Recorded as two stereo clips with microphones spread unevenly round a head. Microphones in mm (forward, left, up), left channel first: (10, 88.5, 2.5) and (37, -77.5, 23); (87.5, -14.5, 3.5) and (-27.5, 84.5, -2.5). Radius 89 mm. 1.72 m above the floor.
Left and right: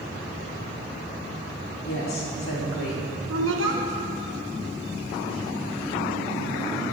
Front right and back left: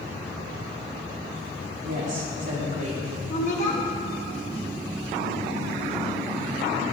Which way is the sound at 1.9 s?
105° left.